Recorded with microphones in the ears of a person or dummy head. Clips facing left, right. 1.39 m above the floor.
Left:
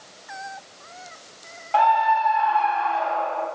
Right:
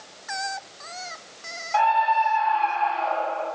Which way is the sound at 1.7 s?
50° left (ahead or behind).